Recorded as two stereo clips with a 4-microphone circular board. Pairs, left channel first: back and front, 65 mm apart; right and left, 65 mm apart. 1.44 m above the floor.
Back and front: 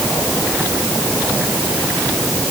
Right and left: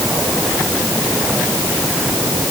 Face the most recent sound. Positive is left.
No sound to turn to.